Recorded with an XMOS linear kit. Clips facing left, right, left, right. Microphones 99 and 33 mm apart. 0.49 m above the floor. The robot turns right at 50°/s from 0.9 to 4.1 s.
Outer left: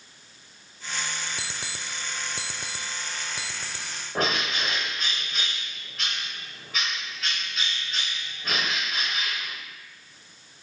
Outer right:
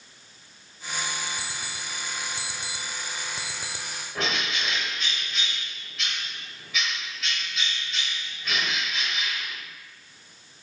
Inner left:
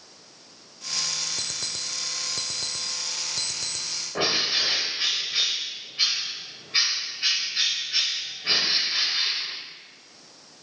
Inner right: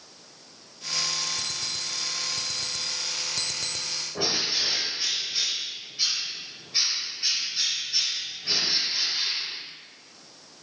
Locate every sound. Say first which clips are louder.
1.4 s an alarm clock: even, inner right 1 dB; 65° left (ahead or behind), 0.8 m; by 3.9 s 15° right (ahead or behind), 0.8 m
4.2 s a bird: outer left 3 dB, inner left 4 dB; 45° left (ahead or behind), 1.1 m